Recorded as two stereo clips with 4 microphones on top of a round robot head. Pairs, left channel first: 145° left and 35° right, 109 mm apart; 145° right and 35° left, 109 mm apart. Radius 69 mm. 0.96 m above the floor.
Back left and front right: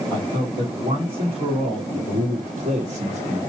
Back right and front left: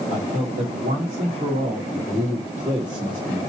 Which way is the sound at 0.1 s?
20° left.